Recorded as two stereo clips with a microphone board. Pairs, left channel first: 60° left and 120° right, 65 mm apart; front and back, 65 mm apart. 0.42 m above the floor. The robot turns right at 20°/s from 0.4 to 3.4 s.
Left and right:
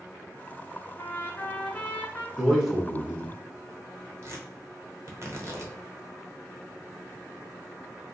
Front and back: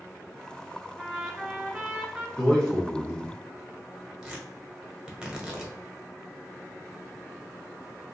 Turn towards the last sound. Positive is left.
turn(degrees=-105)